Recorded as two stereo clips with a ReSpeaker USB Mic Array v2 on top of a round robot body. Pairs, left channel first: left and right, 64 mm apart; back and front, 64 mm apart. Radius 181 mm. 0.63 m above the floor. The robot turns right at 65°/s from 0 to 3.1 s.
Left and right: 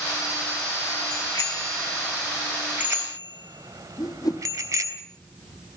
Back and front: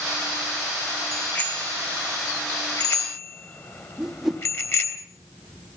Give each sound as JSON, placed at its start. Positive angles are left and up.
{"t": 1.1, "sound": "a bicycle bell", "azimuth_deg": 100, "distance_m": 3.0}
{"t": 4.0, "sound": "a whoosh", "azimuth_deg": 85, "distance_m": 1.4}